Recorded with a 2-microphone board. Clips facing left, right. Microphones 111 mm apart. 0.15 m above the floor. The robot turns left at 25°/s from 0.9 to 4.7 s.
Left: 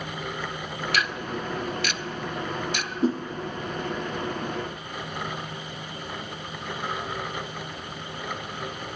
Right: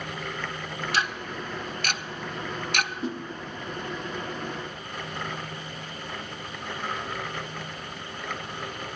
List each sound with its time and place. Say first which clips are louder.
0.9 s ticking: left 1 dB; 30° right (ahead or behind), 0.7 m; by 2.9 s 65° right (ahead or behind), 0.7 m
3.0 s a whoosh: left 8 dB; 40° left (ahead or behind), 1.6 m; by 3.2 s 35° left (ahead or behind), 1.6 m